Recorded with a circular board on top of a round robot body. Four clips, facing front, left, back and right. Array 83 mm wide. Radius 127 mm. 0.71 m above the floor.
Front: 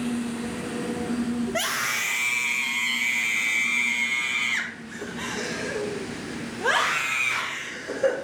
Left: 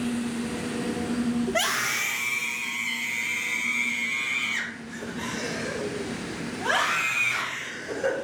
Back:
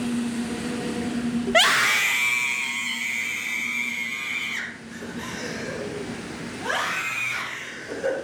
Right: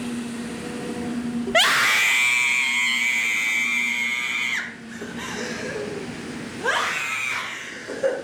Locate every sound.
1.5 s a scream: 140° right, 0.9 m; by 8.1 s 40° right, 4 m